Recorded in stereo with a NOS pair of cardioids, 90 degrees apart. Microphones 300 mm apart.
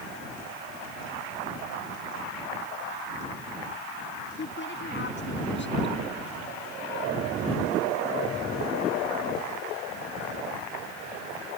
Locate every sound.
4.4 s a woman speaking: 40° left